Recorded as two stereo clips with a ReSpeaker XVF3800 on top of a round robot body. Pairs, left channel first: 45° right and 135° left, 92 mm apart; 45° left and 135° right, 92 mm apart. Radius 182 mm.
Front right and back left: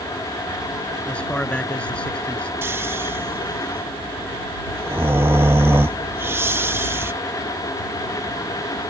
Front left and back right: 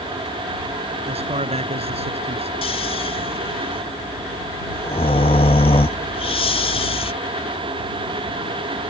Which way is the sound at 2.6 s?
70° left.